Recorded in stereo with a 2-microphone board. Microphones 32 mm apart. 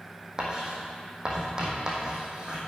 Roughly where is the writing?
Right.